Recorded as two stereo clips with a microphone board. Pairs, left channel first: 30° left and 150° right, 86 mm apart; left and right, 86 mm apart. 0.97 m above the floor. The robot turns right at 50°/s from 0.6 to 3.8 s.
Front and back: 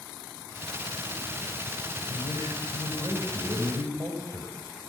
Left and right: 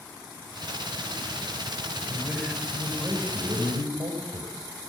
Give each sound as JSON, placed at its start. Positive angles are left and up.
{"t": 2.1, "sound": "a man speaking", "azimuth_deg": 180, "distance_m": 6.0}